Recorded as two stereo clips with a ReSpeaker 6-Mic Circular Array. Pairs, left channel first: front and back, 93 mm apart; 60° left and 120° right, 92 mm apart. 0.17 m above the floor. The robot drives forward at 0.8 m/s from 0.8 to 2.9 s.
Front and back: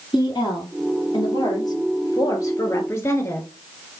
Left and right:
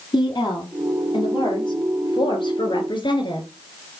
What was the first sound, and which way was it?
A woman speaking, 30° left.